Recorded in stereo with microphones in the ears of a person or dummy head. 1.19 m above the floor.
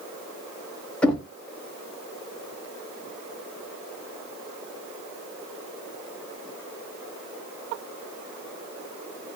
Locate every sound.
1.0 s knocking: 5° left (ahead or behind), 0.6 m